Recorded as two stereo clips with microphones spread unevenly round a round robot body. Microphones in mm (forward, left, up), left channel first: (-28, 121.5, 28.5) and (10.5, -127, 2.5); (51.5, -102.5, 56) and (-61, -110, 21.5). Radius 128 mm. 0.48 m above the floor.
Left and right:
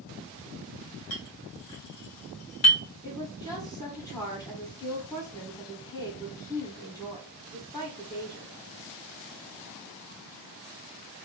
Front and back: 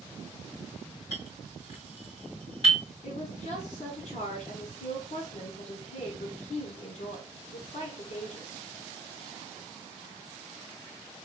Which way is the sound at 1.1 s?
75° left.